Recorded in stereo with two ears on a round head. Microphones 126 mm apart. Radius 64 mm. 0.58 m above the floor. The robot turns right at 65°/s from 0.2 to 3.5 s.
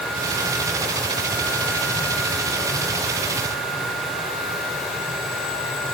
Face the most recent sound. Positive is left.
No sound to turn to.